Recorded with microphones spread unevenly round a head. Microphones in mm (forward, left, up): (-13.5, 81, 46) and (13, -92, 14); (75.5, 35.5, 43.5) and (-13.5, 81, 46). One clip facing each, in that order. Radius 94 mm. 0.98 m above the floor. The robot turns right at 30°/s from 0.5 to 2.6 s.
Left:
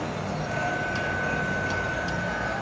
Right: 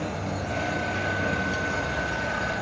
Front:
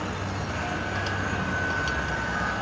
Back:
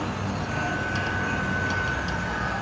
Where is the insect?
130° right, 9 m; by 2.6 s 65° right, 9 m.